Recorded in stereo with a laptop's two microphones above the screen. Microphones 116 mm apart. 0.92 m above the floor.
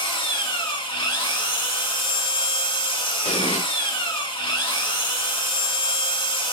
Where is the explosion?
75° left (ahead or behind), 1.4 m.